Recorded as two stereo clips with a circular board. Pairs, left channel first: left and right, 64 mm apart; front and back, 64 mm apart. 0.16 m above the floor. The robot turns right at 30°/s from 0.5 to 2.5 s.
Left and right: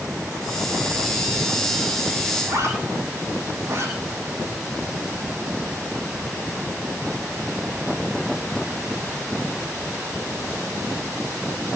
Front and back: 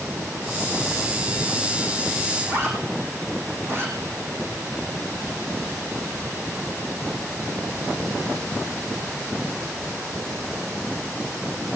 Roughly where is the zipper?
Behind right.